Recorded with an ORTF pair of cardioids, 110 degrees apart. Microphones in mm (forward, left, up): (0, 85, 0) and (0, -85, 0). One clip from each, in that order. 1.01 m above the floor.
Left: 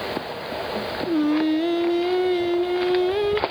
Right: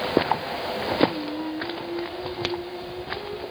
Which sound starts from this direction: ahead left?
Singing, at 1.1 s.